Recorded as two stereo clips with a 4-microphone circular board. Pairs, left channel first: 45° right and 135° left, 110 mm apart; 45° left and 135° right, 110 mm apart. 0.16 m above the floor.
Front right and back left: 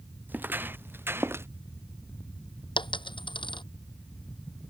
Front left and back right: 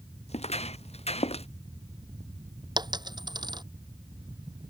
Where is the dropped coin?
85° right.